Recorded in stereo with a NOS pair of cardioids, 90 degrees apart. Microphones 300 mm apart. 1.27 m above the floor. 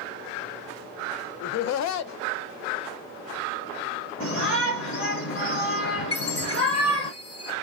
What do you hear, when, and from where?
1.4 s laughter: 65° left, 0.5 m
4.2 s a shout: 45° left, 1.6 m
6.1 s a chime: 50° left, 2 m